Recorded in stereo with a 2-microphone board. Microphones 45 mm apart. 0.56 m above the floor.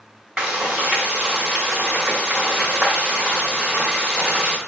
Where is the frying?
20° right (ahead or behind), 1.0 m.